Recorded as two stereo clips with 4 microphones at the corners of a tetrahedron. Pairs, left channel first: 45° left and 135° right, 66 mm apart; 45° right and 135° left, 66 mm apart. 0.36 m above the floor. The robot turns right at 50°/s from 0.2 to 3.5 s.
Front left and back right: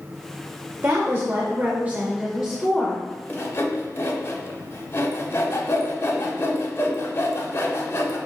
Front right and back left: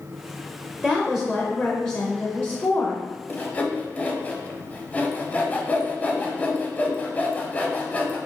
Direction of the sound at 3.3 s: Straight ahead.